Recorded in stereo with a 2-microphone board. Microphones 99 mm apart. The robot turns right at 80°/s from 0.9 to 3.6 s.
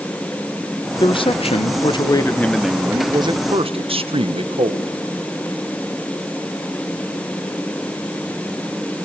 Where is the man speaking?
50° left, 1.3 m; by 4.9 s 100° right, 1.3 m.